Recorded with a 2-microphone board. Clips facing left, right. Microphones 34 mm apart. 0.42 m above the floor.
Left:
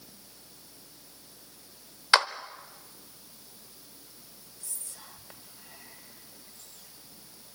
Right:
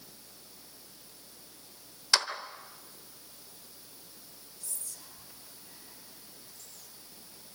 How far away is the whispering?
About 2.5 m.